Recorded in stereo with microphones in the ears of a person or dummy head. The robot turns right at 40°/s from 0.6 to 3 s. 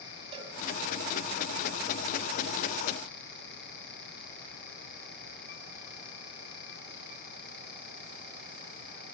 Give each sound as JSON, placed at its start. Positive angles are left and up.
{"t": 0.3, "sound": "a cowbell", "side_deg": -35, "distance_m": 3.5}